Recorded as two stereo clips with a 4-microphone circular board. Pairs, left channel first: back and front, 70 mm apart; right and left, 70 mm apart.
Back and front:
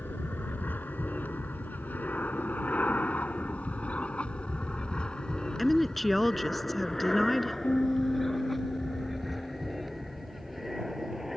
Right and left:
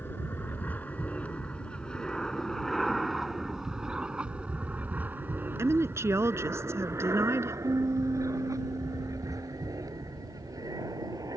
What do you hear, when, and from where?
0.0 s an aircraft: 130° right; by 11.4 s 85° left
5.6 s a woman speaking: 90° left
7.6 s a piano: 125° left